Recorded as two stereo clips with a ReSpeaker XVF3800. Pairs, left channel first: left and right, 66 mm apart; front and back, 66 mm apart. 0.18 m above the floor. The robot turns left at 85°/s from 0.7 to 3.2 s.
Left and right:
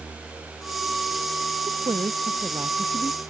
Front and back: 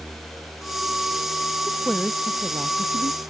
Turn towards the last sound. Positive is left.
turn(degrees=165)